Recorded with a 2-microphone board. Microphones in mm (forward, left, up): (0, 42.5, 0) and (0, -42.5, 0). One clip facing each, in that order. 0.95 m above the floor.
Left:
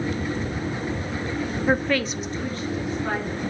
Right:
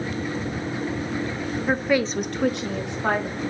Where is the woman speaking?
10° left (ahead or behind), 0.7 m; by 3.4 s 65° right (ahead or behind), 1.8 m.